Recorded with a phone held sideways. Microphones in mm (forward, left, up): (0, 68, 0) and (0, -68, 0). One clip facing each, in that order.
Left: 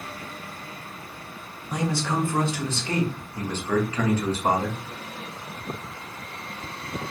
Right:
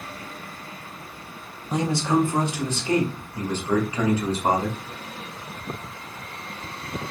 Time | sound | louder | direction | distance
1.7 | a man speaking | right 4 dB | 25° right (ahead or behind) | 0.7 m